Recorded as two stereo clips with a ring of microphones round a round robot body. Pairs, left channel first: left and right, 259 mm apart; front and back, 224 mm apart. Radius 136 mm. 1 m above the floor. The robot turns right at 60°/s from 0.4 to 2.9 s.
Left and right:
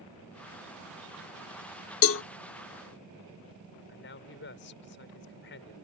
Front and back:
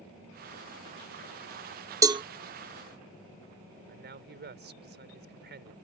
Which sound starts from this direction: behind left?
A man speaking, at 3.9 s.